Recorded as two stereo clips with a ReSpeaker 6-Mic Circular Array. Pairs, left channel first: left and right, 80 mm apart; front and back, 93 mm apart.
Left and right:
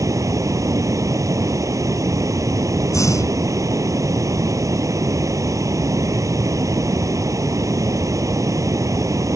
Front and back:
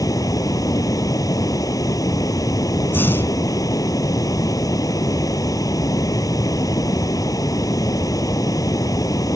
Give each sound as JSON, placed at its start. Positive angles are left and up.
{"t": 0.0, "sound": "running water", "azimuth_deg": -45}
{"t": 2.9, "sound": "breathing", "azimuth_deg": 60}